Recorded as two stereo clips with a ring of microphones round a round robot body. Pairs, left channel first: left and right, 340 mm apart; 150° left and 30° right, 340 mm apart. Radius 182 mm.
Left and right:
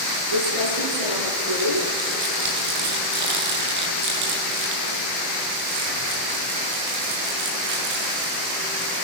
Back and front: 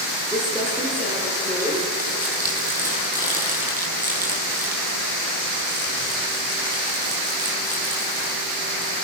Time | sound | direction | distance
0.3 | crumpling | 110° right | 8 m